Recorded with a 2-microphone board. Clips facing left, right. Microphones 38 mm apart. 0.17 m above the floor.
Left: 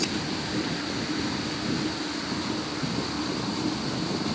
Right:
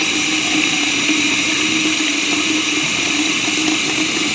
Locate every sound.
0.0 s running water: 75° right (ahead or behind)